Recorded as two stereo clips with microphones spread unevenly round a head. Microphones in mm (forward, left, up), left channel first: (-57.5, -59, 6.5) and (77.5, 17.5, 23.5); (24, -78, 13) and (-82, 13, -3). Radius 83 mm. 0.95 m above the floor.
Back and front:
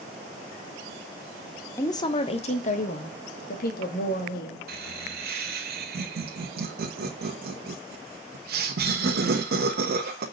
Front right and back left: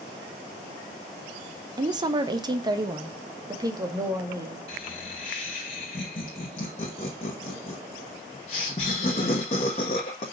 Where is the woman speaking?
160° left, 0.9 m; by 4.6 s 160° right, 2.5 m.